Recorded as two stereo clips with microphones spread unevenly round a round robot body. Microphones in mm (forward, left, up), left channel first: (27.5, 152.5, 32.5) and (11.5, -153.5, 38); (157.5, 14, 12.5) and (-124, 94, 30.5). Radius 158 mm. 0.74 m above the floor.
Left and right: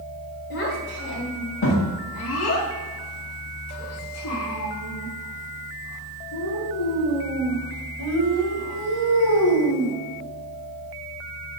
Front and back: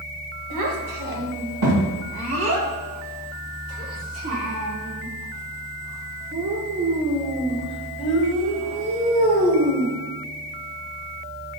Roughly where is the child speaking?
Behind left.